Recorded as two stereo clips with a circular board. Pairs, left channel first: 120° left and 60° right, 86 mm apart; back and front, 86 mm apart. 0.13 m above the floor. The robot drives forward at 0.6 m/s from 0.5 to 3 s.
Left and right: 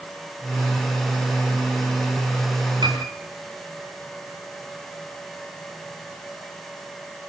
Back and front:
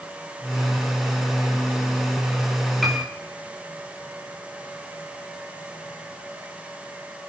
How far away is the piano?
About 6.5 m.